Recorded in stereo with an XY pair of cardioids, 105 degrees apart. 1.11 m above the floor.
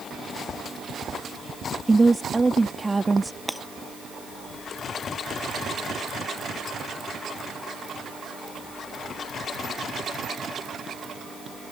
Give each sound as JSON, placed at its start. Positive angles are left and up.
{"t": 1.9, "sound": "a woman speaking", "azimuth_deg": -20}
{"t": 3.5, "sound": "breaking glass", "azimuth_deg": -5}